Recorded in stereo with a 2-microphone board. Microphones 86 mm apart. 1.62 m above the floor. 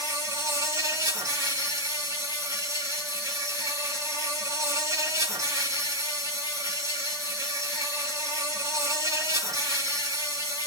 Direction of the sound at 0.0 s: 45° right (ahead or behind).